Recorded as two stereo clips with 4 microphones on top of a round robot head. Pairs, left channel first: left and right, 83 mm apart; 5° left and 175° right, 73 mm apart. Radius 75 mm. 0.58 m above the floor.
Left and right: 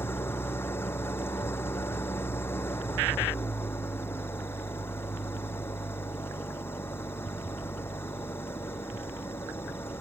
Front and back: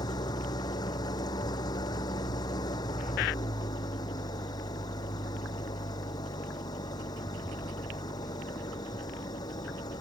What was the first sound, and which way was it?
An engine running, 30° left.